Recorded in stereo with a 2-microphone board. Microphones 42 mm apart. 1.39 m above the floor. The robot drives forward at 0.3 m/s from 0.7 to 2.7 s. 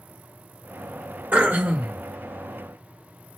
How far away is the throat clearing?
About 1.2 m.